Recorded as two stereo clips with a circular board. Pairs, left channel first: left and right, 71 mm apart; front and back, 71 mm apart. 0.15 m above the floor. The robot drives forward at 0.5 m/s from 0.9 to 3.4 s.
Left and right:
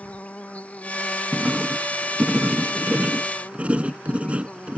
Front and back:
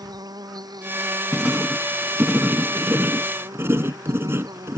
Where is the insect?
160° left.